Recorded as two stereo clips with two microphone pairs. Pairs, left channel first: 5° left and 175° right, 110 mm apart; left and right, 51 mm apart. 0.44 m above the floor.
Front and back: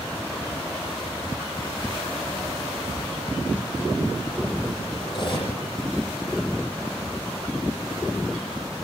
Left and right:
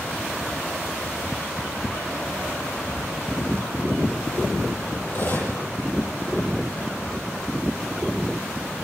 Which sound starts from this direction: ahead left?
Cutlery clinking, at 5.1 s.